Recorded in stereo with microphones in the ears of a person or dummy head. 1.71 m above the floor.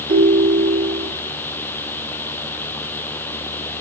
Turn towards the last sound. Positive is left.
turn(degrees=-55)  # may be behind; listen again after turning